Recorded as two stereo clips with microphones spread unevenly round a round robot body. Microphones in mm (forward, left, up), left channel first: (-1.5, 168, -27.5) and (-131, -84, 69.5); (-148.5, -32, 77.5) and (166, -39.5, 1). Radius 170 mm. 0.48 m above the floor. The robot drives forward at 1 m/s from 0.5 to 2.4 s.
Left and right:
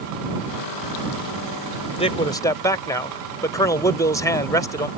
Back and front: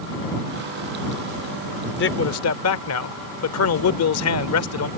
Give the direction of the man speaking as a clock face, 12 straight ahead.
8 o'clock.